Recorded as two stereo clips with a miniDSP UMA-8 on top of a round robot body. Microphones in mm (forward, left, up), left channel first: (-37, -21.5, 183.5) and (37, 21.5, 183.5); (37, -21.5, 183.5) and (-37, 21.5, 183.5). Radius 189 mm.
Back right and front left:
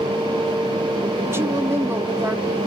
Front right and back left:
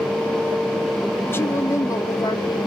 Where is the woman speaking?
5° left, 1.5 m; by 2.7 s 30° right, 2.0 m.